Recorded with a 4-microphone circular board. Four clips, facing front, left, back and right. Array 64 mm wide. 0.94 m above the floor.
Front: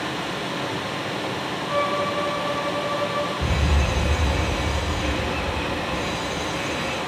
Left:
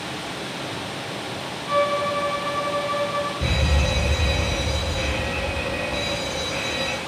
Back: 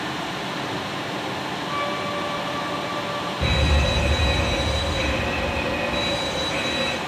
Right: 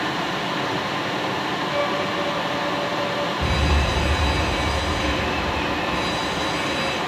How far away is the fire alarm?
About 6.5 m.